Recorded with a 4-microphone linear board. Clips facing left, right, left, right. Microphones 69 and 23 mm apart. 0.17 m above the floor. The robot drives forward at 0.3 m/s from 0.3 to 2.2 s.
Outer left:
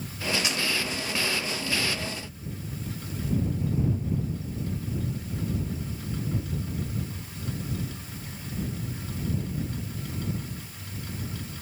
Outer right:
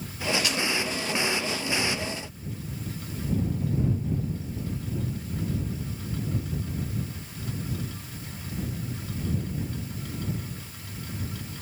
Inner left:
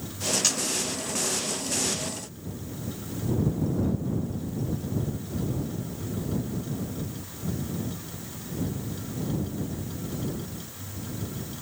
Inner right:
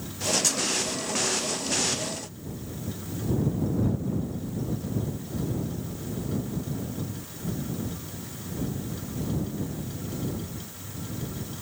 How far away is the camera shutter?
About 1.9 m.